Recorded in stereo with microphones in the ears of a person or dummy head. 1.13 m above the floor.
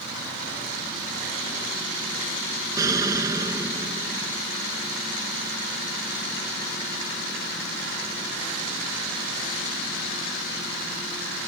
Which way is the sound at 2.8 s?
20° right (ahead or behind).